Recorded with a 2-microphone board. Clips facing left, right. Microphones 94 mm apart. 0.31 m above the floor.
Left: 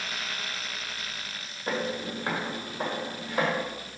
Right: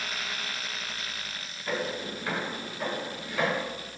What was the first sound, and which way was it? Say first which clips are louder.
Footsteps: left 1 dB; 40° left (ahead or behind).